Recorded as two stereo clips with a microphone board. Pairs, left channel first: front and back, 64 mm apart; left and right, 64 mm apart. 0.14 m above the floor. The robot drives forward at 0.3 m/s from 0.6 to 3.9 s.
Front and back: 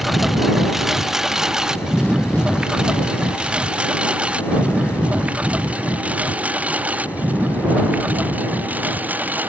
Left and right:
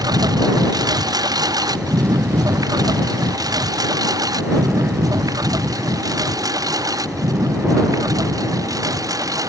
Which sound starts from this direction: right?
A lawn mower, at 0.0 s.